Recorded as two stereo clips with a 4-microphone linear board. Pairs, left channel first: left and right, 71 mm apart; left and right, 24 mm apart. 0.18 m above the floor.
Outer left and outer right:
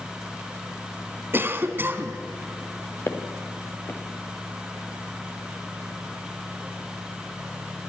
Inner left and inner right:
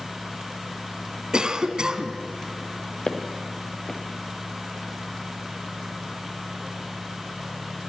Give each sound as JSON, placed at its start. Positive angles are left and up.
{"t": 1.3, "sound": "a cough", "side_deg": -35, "distance_m": 1.3}
{"t": 3.1, "sound": "footsteps", "side_deg": 40, "distance_m": 2.0}